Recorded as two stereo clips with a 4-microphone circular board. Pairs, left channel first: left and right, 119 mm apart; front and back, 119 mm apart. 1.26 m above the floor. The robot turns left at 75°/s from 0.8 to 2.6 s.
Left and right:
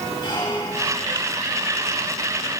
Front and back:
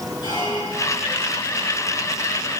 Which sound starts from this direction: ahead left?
A squeak, at 0.2 s.